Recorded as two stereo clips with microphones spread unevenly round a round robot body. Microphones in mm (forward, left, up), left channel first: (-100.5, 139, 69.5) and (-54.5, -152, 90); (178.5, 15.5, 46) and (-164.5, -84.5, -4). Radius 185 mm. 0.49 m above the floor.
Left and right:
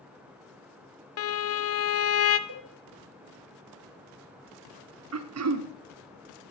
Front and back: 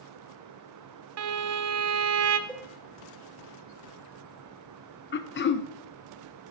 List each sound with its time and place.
1.2 s a violin: 140° left, 0.6 m
2.5 s a cowbell: 75° right, 1.7 m
5.1 s throat clearing: 45° right, 0.8 m